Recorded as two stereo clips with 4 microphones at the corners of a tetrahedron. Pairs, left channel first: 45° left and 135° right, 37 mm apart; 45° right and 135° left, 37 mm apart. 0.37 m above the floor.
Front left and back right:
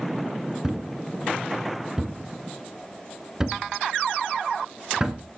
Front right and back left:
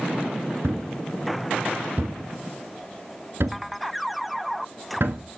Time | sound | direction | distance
0.6 | a thud | 150° left | 0.9 m